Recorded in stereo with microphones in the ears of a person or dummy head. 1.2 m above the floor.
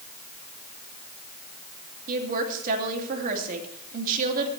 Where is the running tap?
No running tap in this recording.